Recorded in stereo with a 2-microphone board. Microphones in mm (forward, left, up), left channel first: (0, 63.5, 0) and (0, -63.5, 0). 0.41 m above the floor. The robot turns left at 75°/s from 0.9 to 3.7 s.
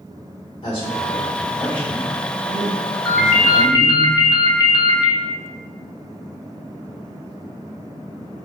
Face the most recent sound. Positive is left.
turn(degrees=135)